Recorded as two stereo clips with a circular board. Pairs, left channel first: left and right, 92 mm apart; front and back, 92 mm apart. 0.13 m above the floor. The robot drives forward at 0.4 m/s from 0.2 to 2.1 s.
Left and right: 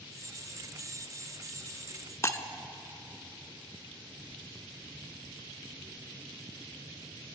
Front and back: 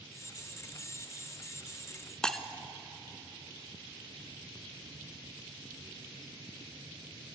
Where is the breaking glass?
75° left, 0.5 m.